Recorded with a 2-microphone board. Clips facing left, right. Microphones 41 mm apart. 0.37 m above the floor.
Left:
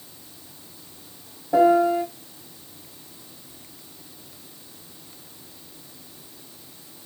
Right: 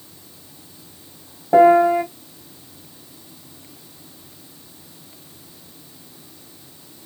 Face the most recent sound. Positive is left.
turn(degrees=-50)  # may be behind; listen again after turning